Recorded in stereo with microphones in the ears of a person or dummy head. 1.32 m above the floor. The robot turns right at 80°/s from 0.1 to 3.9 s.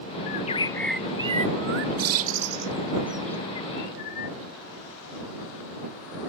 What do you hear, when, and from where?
0.3 s a bird: 55° left (ahead or behind)